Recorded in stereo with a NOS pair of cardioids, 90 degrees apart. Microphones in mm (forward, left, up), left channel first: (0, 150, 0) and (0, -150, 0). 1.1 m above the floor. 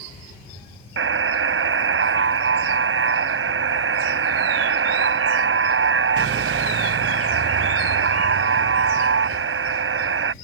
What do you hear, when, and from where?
1.0 s a buzzer: 40° right